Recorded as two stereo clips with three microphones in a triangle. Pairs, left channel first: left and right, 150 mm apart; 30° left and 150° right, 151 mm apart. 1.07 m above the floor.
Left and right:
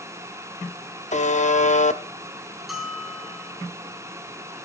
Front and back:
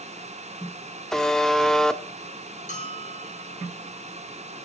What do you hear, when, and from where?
1.1 s a buzzer: 115° left, 0.9 m
2.7 s a bell: straight ahead, 1.9 m